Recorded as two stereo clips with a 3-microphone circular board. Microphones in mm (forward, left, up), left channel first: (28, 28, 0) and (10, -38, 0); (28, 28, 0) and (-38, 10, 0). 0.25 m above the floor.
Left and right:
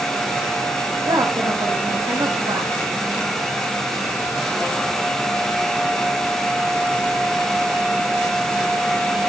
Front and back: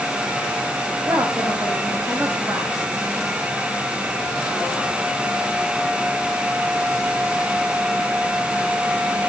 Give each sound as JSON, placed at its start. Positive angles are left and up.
{"t": 1.1, "sound": "a woman speaking", "azimuth_deg": -120, "distance_m": 9.0}